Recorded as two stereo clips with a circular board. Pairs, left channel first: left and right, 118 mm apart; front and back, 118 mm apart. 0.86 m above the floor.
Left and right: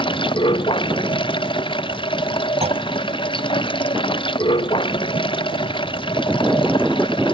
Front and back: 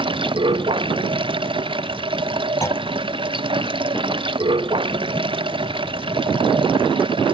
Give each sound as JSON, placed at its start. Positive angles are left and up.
{"t": 0.0, "sound": "running water", "azimuth_deg": 135}
{"t": 2.6, "sound": "a clunk", "azimuth_deg": -65}